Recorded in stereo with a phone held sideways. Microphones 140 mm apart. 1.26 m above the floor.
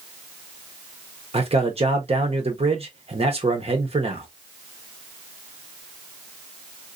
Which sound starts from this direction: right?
A man speaking, at 1.3 s.